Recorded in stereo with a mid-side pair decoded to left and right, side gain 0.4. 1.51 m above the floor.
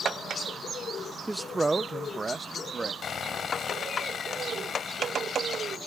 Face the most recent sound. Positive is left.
turn(degrees=55)